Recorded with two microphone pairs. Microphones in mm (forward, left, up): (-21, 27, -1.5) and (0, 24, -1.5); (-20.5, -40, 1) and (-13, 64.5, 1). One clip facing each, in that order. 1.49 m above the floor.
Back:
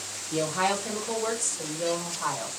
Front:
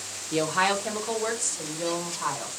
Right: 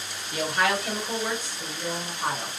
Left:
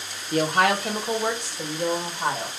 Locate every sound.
0.3 s a woman speaking: 45° left, 0.9 m; by 2.5 s 80° left, 1.9 m